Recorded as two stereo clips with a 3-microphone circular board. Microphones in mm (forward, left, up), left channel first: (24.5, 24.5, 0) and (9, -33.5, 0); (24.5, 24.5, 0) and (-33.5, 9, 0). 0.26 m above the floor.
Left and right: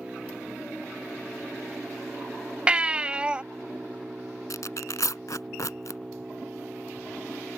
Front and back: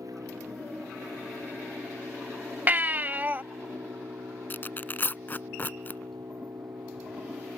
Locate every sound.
0.0 s an engine running: straight behind
2.7 s a baby crying: 155° right
4.5 s tearing paper: 70° left